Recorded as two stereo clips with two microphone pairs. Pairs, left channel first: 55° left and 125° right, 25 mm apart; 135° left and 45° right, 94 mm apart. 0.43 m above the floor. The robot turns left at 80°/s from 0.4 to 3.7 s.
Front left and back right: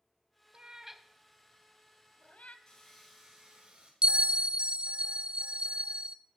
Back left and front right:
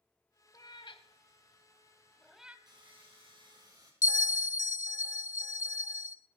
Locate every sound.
0.5 s a cat meowing: 175° right, 0.8 m; by 2.6 s 25° left, 0.8 m
2.7 s sawing: 5° right, 4 m; by 3.9 s 90° right, 4 m
4.0 s a bell: 170° right, 0.6 m